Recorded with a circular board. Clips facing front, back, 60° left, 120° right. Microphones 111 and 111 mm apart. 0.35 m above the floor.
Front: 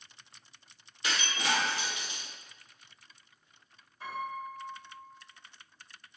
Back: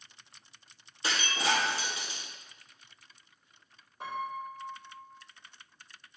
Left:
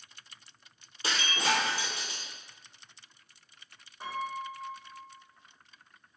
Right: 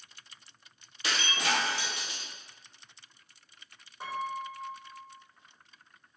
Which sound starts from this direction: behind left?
Breaking glass, at 1.0 s.